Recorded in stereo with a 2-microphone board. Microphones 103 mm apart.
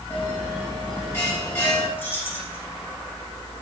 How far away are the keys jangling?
About 4 m.